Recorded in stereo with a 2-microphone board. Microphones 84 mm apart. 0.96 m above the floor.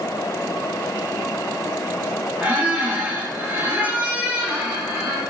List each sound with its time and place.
2.4 s a squeak: 20° right (ahead or behind), 0.8 m